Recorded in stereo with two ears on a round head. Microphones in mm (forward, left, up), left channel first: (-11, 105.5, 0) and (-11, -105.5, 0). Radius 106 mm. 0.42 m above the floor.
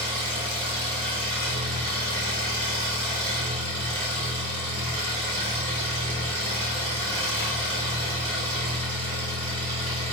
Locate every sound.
0.0 s an engine running: 20° right (ahead or behind), 1.1 m